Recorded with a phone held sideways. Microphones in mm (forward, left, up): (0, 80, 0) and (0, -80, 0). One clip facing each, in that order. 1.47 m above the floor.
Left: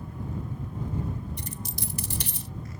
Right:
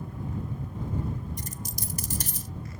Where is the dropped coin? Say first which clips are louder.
Left 1 dB; 45° right (ahead or behind).